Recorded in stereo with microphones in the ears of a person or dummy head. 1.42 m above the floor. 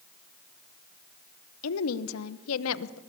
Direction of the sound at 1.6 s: 85° left.